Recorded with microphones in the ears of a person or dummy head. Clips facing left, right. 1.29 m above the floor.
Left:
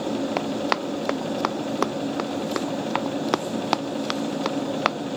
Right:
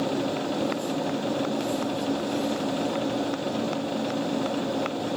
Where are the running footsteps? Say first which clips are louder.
Left 1 dB; 70° left (ahead or behind); by 5.0 s 85° left.